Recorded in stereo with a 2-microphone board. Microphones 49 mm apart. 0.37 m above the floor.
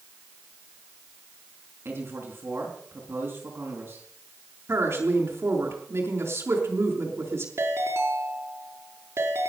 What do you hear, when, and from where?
1.9 s a man speaking: 50° right (ahead or behind), 4.5 m
4.7 s a woman speaking: 60° right (ahead or behind), 5 m
7.6 s a ringtone: 65° right (ahead or behind), 3.5 m